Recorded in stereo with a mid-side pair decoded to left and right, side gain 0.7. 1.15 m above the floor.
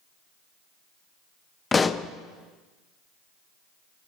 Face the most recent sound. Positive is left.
turn(degrees=20)